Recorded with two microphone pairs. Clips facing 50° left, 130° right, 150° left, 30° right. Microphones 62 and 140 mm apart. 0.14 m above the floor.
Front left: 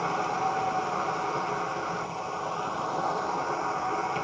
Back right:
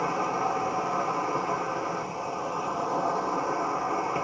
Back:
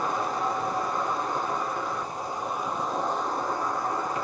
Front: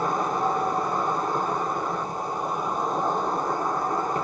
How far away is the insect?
About 1.3 m.